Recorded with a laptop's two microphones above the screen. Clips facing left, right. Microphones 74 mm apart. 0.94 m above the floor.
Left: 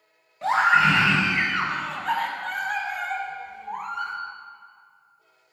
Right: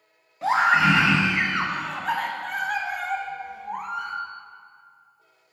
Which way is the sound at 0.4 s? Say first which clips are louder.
Even; 5° right (ahead or behind).